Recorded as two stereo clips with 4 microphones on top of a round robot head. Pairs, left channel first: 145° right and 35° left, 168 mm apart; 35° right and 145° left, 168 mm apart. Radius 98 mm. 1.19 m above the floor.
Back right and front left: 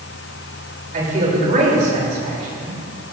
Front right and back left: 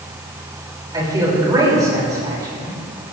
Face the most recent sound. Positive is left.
turn(degrees=80)